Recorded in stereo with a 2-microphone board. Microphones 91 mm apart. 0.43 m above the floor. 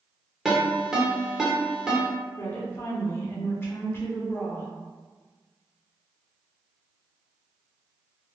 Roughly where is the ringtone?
Centre.